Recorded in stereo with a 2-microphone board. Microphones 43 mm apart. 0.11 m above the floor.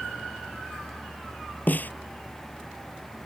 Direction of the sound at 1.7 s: 45° left (ahead or behind).